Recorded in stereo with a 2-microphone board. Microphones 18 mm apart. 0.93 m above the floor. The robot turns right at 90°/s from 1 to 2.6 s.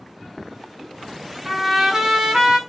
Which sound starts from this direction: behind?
A trumpet, at 1.4 s.